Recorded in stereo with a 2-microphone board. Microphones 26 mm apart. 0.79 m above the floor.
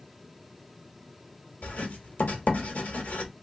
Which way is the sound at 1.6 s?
70° left (ahead or behind).